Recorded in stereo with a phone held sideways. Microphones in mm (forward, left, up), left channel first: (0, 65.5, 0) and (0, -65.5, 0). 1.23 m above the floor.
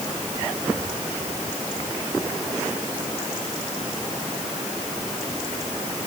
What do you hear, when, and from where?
Only background noise.